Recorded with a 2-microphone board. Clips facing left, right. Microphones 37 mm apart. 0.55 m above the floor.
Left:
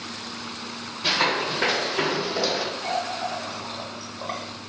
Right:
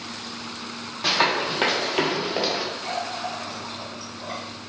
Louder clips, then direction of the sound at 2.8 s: Left 2 dB; 50° left (ahead or behind).